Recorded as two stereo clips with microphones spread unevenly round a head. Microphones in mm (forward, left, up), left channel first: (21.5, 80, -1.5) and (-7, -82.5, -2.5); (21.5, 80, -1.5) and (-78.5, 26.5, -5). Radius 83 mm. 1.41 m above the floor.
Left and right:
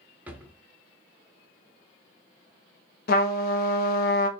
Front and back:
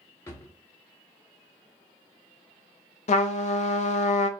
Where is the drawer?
25° right, 0.8 m.